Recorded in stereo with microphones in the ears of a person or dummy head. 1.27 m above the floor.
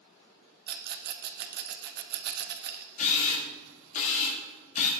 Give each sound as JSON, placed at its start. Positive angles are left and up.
{"t": 0.7, "sound": "a rattle", "side_deg": -55, "distance_m": 0.7}
{"t": 3.0, "sound": "a camera shutter", "side_deg": 50, "distance_m": 2.0}